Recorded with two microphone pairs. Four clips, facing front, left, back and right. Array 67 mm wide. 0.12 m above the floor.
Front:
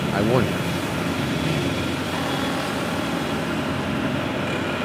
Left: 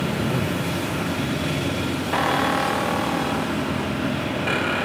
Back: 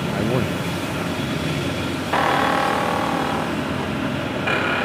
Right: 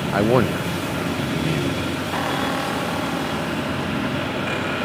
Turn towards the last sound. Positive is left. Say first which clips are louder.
# left 4 dB, back 11 dB
turn(degrees=170)